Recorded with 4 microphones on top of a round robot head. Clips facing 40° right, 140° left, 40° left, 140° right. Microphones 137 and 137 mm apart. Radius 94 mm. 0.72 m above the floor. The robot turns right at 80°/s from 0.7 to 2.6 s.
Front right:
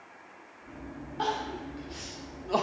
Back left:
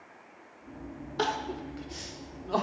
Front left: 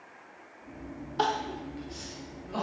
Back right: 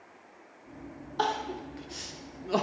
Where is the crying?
125° left, 0.8 m; by 2.6 s 120° right, 0.8 m.